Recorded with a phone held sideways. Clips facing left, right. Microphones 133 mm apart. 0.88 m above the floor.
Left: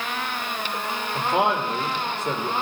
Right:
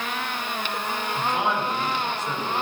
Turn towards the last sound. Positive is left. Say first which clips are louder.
# left 4 dB
turn(degrees=65)  # may be behind; listen again after turning